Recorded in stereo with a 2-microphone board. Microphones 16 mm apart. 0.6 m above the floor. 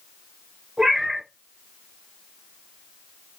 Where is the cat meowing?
60° right (ahead or behind), 1.5 m.